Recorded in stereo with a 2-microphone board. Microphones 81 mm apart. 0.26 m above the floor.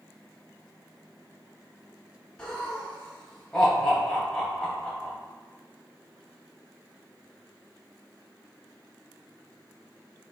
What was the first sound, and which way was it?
Laughter, 10° left (ahead or behind).